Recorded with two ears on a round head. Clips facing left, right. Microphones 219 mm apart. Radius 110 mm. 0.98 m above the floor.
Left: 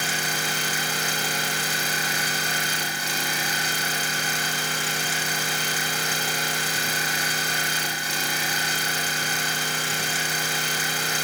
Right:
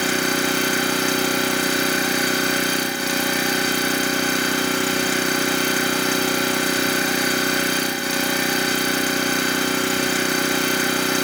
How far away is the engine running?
About 1.6 m.